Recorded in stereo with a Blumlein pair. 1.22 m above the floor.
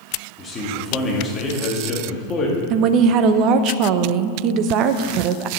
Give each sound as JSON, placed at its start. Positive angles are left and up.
{"t": 0.4, "sound": "a man speaking", "azimuth_deg": 20, "distance_m": 2.5}
{"t": 2.7, "sound": "a woman speaking", "azimuth_deg": -40, "distance_m": 0.7}